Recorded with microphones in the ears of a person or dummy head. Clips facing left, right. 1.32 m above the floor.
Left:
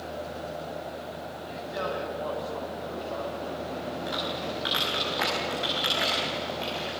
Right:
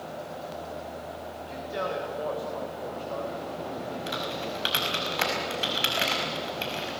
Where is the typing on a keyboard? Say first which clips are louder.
Left 1 dB; 45° right (ahead or behind), 4.5 m.